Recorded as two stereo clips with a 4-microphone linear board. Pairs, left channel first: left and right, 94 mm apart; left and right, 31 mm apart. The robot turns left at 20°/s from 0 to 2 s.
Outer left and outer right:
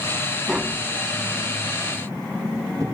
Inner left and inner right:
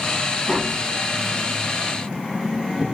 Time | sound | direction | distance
0.5 | tapping | 5° right (ahead or behind) | ?